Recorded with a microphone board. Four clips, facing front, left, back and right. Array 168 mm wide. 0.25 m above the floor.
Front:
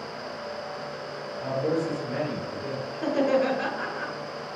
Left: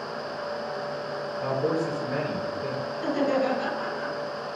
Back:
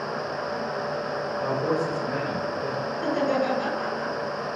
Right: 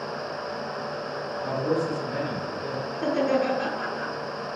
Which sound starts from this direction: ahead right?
Laughter, at 2.9 s.